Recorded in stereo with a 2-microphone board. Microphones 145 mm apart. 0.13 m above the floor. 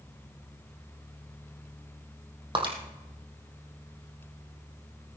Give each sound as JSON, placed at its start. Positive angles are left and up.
{"t": 2.5, "sound": "breaking glass", "side_deg": -35, "distance_m": 3.0}